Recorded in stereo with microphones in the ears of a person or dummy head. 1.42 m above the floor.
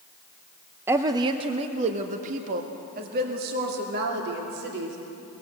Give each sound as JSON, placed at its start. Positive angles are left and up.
{"t": 0.9, "sound": "a woman speaking", "side_deg": -10, "distance_m": 0.9}